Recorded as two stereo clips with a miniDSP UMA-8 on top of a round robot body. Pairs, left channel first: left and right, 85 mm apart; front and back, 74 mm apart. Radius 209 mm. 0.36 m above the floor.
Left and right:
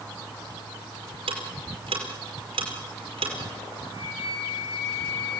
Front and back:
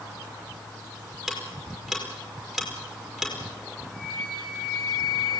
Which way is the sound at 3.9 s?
85° left.